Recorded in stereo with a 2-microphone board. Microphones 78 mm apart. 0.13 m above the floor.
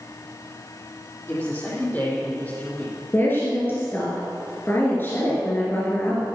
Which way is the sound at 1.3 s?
30° left (ahead or behind).